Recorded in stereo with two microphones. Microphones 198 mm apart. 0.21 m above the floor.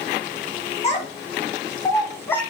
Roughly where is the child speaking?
Left.